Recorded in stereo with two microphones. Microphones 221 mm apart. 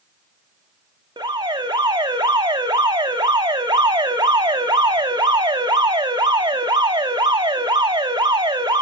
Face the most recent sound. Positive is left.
turn(degrees=-20)  # may be behind; listen again after turning